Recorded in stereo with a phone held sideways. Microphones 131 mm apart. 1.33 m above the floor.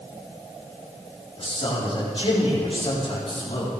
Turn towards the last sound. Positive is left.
turn(degrees=45)  # may be behind; listen again after turning